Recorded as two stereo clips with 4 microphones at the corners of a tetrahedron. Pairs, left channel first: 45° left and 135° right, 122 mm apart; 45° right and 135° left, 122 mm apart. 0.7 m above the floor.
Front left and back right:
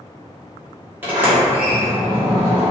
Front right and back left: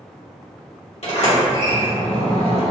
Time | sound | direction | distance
1.0 | a sliding door | 60° right | 1.2 m